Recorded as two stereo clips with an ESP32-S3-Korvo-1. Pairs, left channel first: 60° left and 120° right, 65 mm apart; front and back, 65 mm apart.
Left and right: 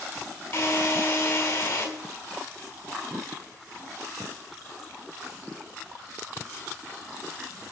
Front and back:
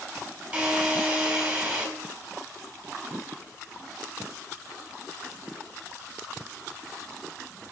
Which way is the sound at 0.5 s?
100° left.